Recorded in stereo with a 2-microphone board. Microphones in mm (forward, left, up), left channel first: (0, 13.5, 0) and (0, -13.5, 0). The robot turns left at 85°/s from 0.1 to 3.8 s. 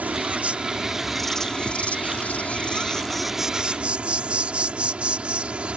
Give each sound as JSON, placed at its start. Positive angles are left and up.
{"t": 0.0, "sound": "an insect", "azimuth_deg": -95}